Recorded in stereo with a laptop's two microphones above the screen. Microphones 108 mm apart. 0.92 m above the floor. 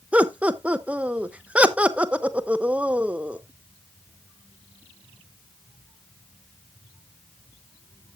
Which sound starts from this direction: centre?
Laughter, at 0.1 s.